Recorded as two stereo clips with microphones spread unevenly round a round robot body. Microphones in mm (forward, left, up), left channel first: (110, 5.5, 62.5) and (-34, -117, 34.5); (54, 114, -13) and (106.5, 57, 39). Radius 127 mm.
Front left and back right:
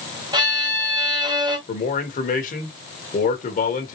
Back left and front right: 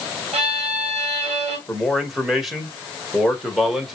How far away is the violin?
About 1.8 m.